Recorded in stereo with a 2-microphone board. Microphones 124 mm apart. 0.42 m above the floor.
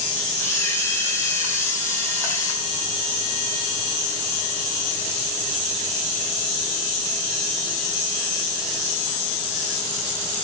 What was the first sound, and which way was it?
A camera shutter, 20° left (ahead or behind).